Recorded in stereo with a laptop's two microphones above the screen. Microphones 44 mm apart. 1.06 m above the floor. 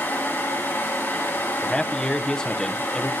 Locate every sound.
0.0 s a fan: 75° left (ahead or behind), 4 m
1.6 s a man speaking: 20° left (ahead or behind), 0.6 m